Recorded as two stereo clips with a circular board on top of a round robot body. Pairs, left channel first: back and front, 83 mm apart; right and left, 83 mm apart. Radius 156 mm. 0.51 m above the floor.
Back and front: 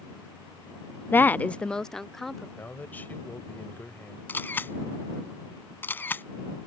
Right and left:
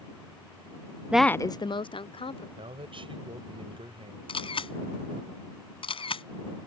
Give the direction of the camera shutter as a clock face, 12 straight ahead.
4 o'clock.